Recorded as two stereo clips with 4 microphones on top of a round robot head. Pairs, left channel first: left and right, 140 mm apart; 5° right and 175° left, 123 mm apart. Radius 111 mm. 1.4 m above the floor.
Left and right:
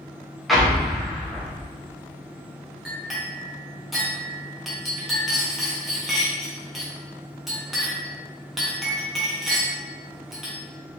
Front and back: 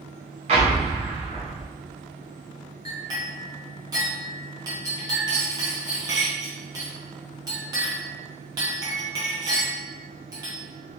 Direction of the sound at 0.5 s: Straight behind.